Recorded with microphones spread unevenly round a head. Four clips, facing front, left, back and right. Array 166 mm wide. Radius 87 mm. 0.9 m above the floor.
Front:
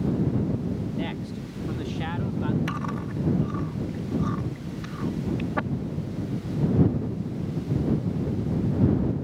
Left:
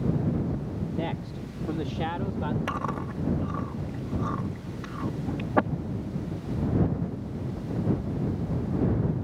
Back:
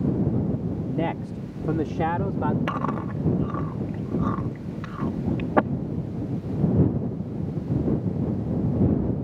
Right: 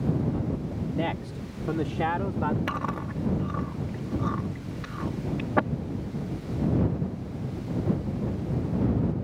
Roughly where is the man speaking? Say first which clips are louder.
Right 4 dB, back 4 dB; behind.